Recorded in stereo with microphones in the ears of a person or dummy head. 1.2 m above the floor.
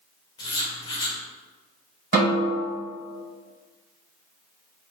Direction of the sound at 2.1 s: 50° right (ahead or behind).